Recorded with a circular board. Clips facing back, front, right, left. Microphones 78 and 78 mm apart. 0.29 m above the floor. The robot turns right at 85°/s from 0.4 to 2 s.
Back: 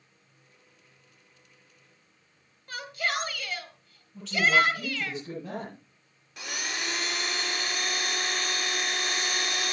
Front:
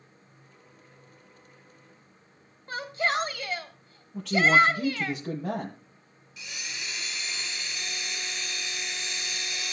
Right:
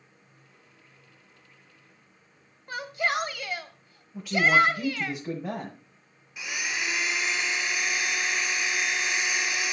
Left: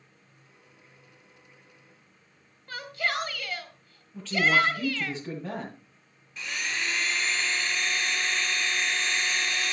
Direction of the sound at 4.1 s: 10° right.